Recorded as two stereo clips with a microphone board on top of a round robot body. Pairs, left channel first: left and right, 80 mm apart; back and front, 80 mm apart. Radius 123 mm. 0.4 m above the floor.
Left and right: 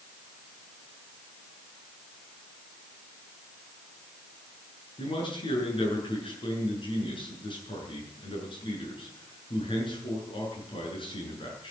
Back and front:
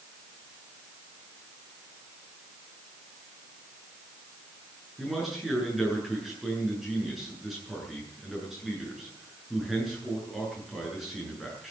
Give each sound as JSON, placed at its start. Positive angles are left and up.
{"t": 5.0, "sound": "a man speaking", "azimuth_deg": 85, "distance_m": 8.0}